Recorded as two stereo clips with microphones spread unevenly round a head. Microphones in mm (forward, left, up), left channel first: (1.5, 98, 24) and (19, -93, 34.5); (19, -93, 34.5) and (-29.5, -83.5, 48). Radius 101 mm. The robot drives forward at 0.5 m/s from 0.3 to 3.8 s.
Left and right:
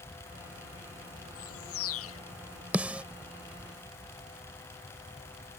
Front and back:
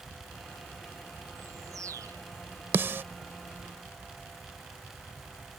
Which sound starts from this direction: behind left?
A bird, at 1.4 s.